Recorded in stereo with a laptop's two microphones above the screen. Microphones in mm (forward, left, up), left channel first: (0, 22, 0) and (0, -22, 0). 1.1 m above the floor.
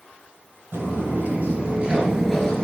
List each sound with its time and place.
0.7 s footsteps: 55° right (ahead or behind), 1.8 m; by 2.6 s 20° left (ahead or behind), 1.1 m